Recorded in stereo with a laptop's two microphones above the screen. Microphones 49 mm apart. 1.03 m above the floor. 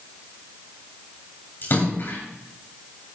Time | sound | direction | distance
1.6 | a splash | 45° left (ahead or behind) | 8 m